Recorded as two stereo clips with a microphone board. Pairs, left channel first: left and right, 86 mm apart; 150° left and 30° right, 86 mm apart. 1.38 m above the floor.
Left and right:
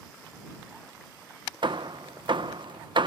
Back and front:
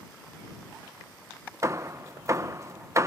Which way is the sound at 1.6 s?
80° right.